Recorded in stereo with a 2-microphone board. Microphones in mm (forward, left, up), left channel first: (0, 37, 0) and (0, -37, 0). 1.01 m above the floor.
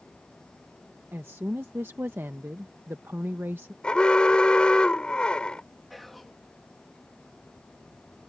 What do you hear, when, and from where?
1.1 s a woman speaking: 35° right (ahead or behind)
3.8 s an alarm: 10° left (ahead or behind)
5.9 s whispering: centre (ahead or behind)